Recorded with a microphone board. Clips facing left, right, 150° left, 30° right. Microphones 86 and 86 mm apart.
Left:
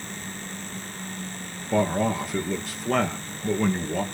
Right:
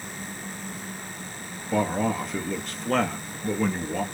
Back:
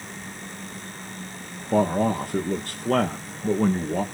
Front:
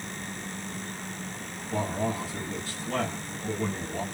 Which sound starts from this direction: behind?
A man speaking, at 1.7 s.